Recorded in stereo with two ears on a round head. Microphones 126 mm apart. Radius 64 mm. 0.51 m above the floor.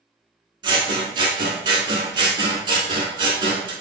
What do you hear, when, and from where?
0.6 s scissors: 40° right (ahead or behind), 0.9 m